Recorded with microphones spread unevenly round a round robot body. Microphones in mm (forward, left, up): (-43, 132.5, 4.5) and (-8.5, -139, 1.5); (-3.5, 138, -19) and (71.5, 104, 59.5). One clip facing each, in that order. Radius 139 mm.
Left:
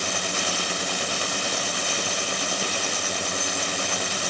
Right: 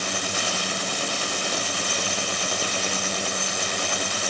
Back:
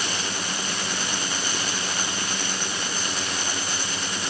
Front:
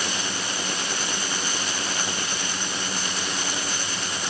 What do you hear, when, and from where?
Only background noise.